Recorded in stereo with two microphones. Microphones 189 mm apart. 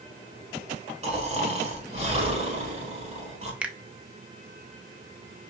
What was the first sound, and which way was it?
Snoring, 30° right (ahead or behind).